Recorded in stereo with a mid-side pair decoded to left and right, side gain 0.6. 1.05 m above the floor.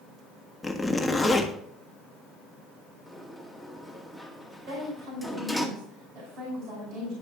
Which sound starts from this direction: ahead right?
A woman speaking, at 4.7 s.